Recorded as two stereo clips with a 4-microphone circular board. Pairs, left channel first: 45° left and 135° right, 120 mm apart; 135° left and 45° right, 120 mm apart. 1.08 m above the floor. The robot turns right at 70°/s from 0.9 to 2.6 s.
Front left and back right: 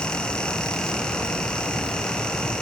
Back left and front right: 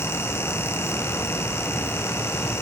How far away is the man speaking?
I don't hear a man speaking.